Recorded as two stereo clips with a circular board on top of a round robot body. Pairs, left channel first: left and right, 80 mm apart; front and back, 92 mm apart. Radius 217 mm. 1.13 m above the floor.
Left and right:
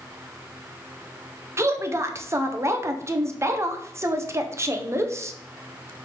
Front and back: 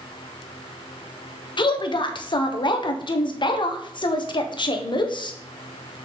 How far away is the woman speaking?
About 1.2 m.